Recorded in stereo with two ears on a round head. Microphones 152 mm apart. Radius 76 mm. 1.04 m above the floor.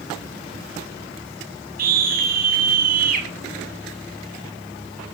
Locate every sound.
1.8 s a scream: 55° right (ahead or behind), 6 m